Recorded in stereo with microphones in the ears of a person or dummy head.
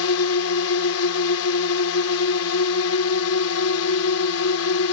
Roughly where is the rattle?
No rattle in this recording.